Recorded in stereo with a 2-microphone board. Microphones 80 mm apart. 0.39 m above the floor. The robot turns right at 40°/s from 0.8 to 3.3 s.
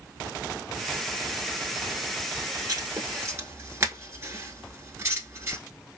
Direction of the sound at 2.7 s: 55° right (ahead or behind).